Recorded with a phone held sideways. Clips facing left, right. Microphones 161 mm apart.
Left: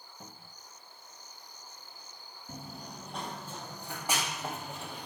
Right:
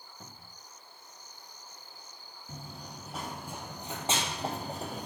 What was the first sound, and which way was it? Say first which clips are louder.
A cupboard door: left 2 dB; centre (ahead or behind).